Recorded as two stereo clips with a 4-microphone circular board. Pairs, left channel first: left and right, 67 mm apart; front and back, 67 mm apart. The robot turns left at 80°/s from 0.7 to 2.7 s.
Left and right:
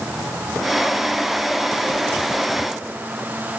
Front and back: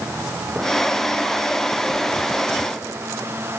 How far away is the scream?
No scream in this recording.